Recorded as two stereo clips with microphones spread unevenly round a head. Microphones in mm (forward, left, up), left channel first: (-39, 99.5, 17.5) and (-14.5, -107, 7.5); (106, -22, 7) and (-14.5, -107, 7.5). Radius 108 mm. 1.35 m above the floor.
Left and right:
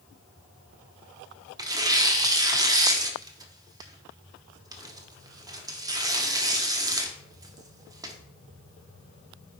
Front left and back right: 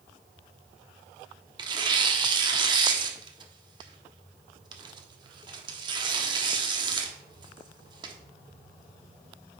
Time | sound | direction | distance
1.6 | tearing paper | 145° right | 0.9 m